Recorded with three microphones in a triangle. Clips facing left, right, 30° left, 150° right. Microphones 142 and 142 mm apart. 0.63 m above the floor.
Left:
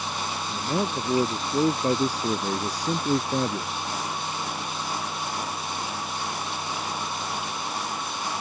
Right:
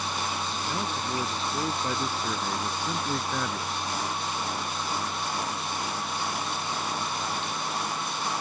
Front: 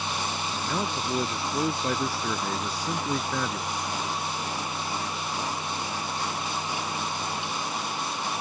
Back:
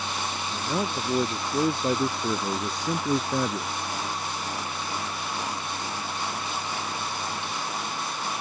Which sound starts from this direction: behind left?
A man speaking, at 0.5 s.